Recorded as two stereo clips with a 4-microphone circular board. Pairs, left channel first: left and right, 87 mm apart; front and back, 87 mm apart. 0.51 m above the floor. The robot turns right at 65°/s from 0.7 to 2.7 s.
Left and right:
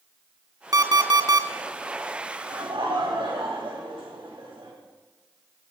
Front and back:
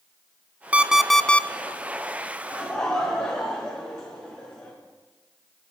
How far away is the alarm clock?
About 0.5 m.